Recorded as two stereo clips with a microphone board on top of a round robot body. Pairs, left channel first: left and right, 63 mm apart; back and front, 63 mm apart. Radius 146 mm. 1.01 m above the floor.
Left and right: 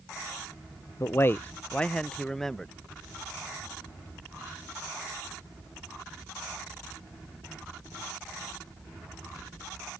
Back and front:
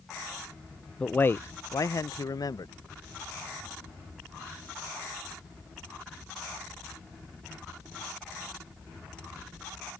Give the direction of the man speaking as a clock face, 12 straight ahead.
8 o'clock.